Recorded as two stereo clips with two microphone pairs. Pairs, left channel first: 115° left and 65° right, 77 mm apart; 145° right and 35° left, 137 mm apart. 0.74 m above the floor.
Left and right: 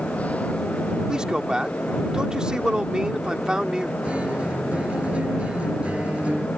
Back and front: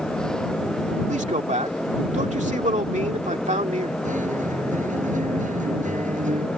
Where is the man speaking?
15° left.